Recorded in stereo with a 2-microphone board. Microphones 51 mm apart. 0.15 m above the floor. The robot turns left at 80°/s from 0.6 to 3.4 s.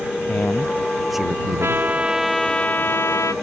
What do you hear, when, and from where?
0.2 s a man speaking: 40° left; by 1.8 s 55° right
1.6 s a trumpet: 125° right; by 3.3 s 100° left